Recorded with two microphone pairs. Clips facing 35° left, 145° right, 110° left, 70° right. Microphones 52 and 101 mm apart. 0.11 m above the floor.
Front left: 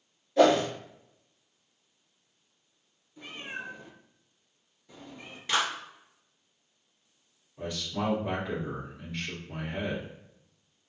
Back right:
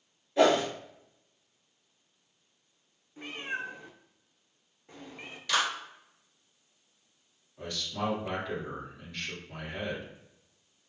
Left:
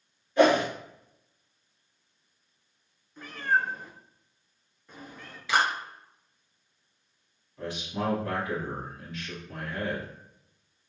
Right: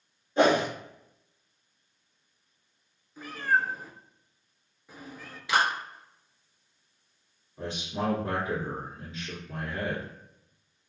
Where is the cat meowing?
150° right, 0.6 m.